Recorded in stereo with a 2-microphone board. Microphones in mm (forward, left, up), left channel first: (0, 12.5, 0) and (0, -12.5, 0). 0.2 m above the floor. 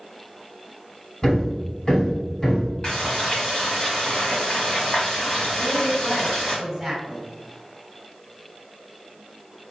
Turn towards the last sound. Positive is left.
turn(degrees=0)  # may be behind; listen again after turning